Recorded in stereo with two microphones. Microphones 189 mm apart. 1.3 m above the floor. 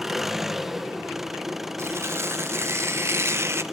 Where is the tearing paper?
15° right (ahead or behind), 1.0 m.